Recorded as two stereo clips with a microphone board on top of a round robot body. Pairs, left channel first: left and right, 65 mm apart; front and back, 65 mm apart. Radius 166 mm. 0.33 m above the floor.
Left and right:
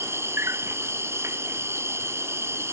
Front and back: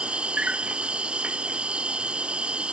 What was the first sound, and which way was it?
An insect, 115° right.